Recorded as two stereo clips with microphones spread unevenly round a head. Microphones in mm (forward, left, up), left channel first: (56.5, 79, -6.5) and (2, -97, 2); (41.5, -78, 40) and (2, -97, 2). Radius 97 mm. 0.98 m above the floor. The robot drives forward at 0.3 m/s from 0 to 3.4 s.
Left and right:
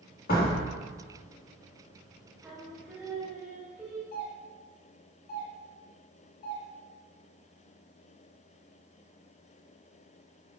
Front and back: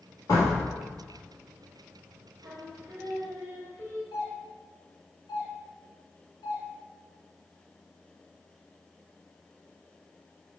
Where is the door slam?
35° left, 1.5 m; by 0.6 s 40° left, 1.4 m.